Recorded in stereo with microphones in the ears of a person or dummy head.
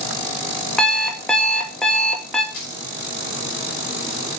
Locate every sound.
0.8 s an alarm clock: 10° left (ahead or behind), 1.6 m
2.5 s keys jangling: 65° left (ahead or behind), 5 m